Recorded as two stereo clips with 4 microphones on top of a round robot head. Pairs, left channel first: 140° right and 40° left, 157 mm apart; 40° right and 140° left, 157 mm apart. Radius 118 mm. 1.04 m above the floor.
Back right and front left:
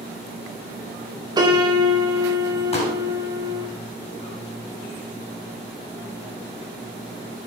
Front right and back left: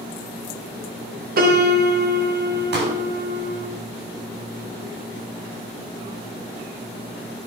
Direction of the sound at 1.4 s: 105° left.